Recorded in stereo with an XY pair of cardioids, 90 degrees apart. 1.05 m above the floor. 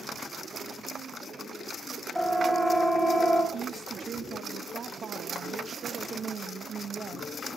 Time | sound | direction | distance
2.1 | a siren | 10° right | 3.5 m
3.5 | a woman speaking | 50° right | 1.0 m